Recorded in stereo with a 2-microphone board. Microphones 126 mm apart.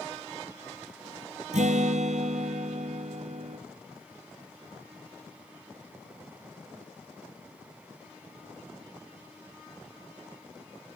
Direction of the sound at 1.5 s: 80° right.